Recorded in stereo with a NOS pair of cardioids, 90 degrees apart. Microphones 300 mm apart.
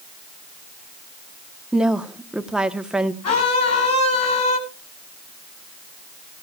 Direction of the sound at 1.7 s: Straight ahead.